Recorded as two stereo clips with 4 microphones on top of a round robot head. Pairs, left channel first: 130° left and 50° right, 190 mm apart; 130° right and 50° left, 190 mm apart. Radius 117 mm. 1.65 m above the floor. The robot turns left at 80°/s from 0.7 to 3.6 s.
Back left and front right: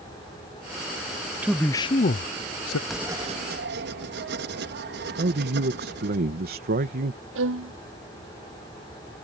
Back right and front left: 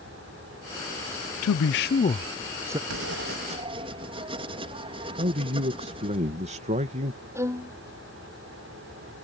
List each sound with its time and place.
1.4 s a man speaking: 130° right; by 2.8 s 120° left
2.9 s writing: 40° left; by 6.2 s 15° right
5.2 s a man speaking: 5° right
7.3 s a violin: 25° right